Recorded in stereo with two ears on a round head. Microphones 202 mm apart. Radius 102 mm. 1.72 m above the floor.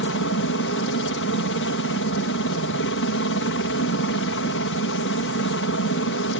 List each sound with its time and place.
0.0 s a helicopter: 55° left (ahead or behind)